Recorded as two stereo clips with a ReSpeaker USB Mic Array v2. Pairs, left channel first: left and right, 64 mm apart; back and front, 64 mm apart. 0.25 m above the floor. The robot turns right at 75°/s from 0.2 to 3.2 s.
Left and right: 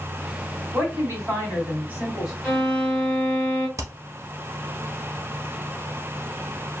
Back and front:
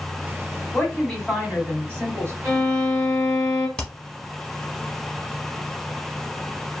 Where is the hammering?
105° right, 0.8 m.